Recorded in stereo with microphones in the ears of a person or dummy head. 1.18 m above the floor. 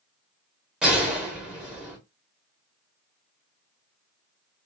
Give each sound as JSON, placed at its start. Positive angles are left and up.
{"t": 0.8, "sound": "a gunshot", "side_deg": 0, "distance_m": 0.9}